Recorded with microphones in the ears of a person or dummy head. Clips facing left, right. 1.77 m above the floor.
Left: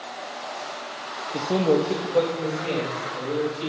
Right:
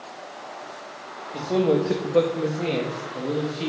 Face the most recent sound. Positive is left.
turn(degrees=-65)  # may be behind; listen again after turning